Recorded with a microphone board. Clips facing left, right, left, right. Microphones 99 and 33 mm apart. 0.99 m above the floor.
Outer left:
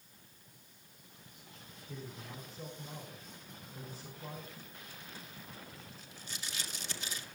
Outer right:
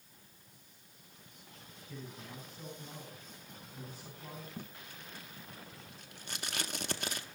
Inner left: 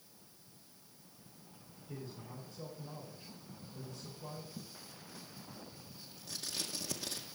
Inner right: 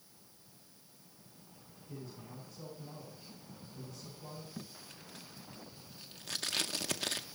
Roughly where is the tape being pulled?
Right.